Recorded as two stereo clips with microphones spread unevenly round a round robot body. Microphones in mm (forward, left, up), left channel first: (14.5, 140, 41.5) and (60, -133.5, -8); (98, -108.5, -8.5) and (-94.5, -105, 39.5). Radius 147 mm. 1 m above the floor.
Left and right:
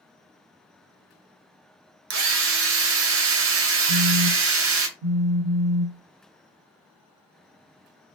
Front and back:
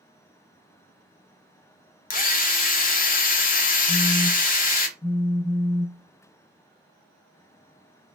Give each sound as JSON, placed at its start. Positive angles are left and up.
{"t": 2.1, "sound": "a drill", "azimuth_deg": -45, "distance_m": 0.6}
{"t": 3.9, "sound": "a phone buzzing", "azimuth_deg": -85, "distance_m": 1.2}